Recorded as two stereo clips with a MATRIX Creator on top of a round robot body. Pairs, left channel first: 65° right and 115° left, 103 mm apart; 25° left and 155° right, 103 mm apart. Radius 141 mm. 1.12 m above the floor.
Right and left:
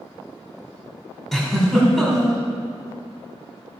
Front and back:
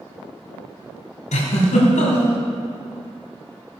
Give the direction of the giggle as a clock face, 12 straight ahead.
11 o'clock.